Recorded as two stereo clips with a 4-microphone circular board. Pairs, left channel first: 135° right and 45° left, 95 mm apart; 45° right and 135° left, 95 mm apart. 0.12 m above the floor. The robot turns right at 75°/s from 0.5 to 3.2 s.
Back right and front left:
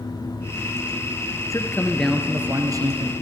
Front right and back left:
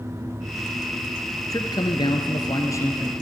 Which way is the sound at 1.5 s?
90° right.